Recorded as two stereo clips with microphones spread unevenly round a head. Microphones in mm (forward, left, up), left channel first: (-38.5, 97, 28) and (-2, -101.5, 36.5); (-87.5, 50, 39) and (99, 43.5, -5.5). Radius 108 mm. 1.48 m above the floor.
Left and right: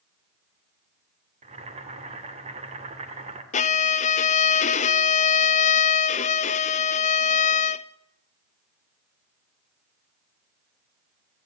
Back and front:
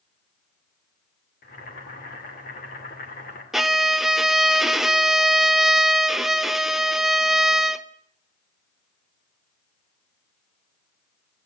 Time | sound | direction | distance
1.4 | boiling | 140° right | 2.5 m
3.5 | a violin | 110° left | 0.5 m